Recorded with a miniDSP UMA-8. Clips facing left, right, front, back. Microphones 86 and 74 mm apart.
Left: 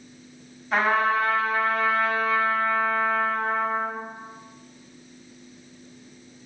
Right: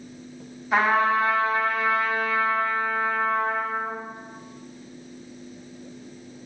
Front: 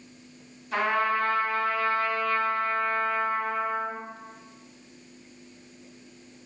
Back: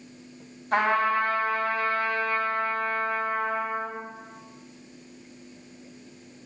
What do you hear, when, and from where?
0.7 s a trumpet: straight behind, 2.5 m